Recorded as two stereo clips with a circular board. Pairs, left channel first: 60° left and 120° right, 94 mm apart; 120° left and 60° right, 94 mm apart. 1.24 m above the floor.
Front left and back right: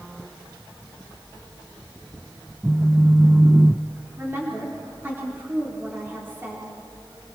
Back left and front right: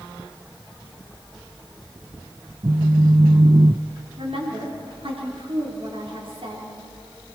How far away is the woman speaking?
About 4 m.